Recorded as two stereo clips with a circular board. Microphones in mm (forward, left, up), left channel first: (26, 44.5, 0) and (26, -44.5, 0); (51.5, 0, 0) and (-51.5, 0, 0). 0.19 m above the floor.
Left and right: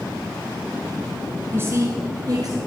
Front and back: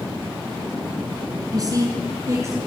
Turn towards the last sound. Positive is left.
turn(degrees=-125)